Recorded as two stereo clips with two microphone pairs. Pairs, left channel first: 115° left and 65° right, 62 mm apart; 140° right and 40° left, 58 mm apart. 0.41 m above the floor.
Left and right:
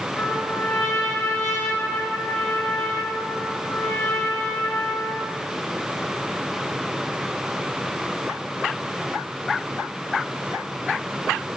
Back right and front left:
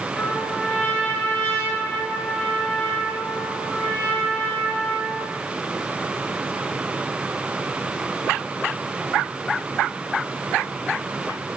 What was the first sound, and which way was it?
A trumpet, 155° left.